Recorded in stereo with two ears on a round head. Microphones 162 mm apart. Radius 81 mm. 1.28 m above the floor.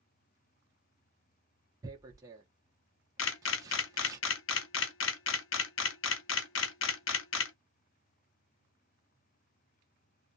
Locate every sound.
1.8 s tearing paper: 20° right (ahead or behind), 0.8 m
3.2 s a camera shutter: 70° left (ahead or behind), 0.6 m